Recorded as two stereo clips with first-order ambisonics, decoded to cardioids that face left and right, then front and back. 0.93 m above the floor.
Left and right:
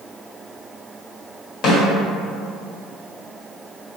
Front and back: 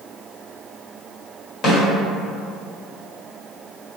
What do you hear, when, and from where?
1.6 s a snare drum: 50° left, 1.4 m